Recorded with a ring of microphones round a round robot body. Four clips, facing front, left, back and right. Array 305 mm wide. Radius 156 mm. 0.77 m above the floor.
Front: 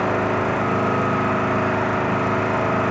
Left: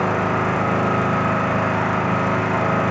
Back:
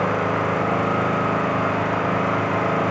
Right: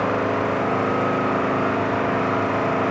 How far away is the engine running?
About 2 m.